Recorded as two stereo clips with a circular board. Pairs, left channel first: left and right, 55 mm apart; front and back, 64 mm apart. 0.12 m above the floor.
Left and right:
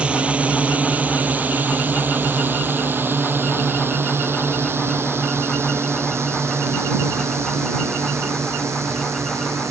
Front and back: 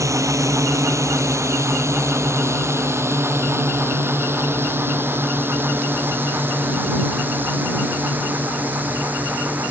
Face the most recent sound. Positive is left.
turn(degrees=-115)